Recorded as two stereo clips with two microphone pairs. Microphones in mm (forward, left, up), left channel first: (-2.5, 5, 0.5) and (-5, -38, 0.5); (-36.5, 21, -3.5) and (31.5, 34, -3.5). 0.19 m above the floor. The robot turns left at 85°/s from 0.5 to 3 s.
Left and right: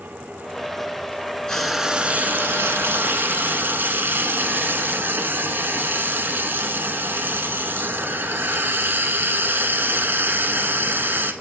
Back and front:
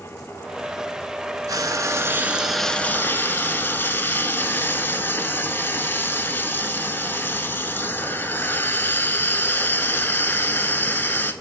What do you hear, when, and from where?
1.5 s frying: 10° left, 0.6 m; by 11.3 s 115° right, 0.6 m